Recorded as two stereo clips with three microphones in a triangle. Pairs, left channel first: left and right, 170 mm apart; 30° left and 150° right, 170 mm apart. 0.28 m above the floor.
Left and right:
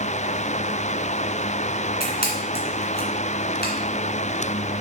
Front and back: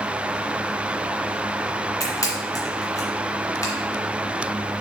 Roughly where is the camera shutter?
Left.